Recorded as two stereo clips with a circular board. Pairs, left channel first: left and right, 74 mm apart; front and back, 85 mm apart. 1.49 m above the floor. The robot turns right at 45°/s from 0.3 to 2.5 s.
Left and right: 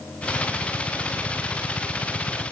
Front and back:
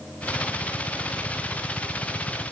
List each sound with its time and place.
Only background noise.